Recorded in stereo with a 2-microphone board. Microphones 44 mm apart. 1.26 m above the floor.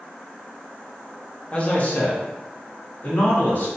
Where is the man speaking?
30° left (ahead or behind), 0.6 m; by 3.7 s 50° left (ahead or behind), 1.7 m.